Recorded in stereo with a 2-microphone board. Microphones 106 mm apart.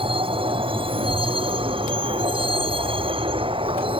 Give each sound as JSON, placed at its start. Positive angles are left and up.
{"t": 0.0, "sound": "a vehicle", "side_deg": -55}